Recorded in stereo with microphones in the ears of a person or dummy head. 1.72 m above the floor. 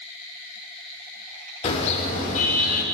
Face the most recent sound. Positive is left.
turn(degrees=55)  # may be behind; listen again after turning